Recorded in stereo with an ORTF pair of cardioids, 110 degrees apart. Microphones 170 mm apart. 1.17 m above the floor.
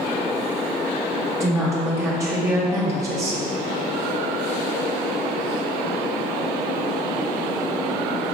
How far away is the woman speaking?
About 1.4 m.